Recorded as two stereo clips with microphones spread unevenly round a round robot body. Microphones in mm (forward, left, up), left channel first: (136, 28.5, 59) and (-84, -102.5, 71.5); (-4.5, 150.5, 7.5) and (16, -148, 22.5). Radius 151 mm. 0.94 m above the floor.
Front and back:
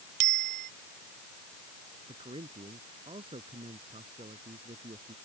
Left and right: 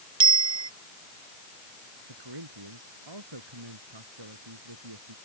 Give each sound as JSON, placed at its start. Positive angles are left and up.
{"t": 0.2, "sound": "a bicycle bell", "azimuth_deg": -160}
{"t": 2.1, "sound": "a man speaking", "azimuth_deg": -80}